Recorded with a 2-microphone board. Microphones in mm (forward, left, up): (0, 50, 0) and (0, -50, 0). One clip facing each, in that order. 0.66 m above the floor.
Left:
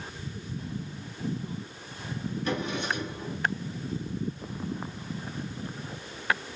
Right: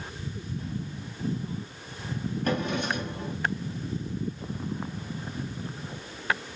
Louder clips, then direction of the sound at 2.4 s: Right 3 dB; 50° right (ahead or behind).